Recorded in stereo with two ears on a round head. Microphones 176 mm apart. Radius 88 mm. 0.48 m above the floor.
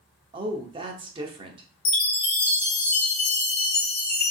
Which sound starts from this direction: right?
A woman speaking, at 0.3 s.